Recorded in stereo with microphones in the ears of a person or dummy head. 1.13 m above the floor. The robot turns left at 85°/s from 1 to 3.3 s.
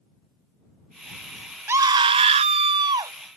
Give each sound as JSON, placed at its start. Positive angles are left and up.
{"t": 1.7, "sound": "a scream", "azimuth_deg": -25}